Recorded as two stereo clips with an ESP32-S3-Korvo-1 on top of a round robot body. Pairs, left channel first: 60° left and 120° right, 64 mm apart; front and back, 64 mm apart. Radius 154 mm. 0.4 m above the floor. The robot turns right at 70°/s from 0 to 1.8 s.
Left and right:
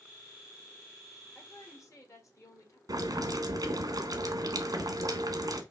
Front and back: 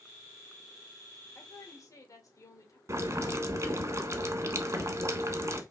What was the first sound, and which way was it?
A woman speaking, 5° right.